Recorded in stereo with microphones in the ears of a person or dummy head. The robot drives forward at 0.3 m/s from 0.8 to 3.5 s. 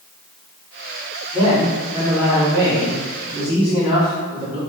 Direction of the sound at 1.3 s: 10° right (ahead or behind).